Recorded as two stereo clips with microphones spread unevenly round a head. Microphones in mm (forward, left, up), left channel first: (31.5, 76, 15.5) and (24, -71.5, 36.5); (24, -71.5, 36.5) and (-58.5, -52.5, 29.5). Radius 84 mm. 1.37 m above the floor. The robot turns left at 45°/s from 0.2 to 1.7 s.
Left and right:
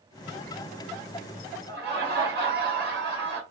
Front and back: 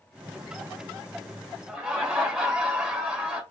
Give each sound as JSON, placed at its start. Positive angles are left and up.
{"t": 1.7, "sound": "laughter", "azimuth_deg": -105, "distance_m": 1.2}